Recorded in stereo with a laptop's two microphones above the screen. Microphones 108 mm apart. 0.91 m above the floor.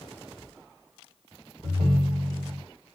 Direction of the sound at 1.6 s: 70° right (ahead or behind).